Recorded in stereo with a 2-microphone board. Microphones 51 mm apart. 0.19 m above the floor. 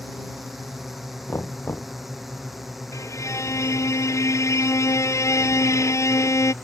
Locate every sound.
0.0 s a drone: centre (ahead or behind)
1.3 s knocking: 50° left (ahead or behind)
2.9 s a violin: 75° left (ahead or behind)